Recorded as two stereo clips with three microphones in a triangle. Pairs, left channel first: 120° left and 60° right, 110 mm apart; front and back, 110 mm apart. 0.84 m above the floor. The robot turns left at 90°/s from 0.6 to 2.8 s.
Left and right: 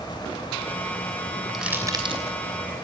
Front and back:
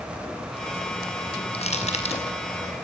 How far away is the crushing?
About 5 m.